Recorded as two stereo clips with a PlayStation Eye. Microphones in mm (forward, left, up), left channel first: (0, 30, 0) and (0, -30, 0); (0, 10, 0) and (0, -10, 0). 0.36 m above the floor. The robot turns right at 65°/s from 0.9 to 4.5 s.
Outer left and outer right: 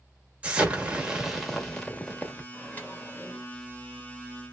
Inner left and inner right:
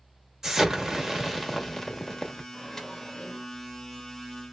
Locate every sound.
0.4 s an explosion: 40° right, 1.2 m; by 2.4 s 60° left, 1.2 m
2.5 s a microwave: 45° left, 1.3 m; by 3.5 s 105° left, 1.3 m